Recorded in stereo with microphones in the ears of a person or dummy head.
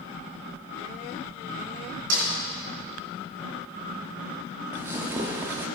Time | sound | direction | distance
2.1 | a snare drum | 65° right (ahead or behind) | 4 m
4.7 | tearing paper | 15° right (ahead or behind) | 0.8 m